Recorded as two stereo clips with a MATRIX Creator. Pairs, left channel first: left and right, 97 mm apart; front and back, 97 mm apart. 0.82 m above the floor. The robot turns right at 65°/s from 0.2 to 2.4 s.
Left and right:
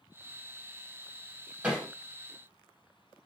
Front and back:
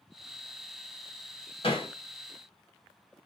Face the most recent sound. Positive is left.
turn(degrees=35)